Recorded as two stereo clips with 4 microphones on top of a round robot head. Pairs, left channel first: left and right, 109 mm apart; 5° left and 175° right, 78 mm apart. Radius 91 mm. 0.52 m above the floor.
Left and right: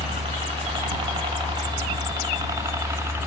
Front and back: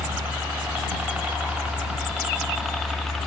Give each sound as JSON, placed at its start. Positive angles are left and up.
{"t": 0.0, "sound": "a helicopter", "azimuth_deg": -105}